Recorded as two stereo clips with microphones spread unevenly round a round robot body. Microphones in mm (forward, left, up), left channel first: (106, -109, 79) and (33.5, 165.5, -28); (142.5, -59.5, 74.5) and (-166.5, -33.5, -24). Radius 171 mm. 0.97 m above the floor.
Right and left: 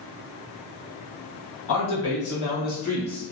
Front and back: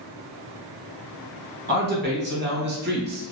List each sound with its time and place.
1.7 s a man speaking: 135° right, 1.4 m; by 3.3 s 170° right, 0.7 m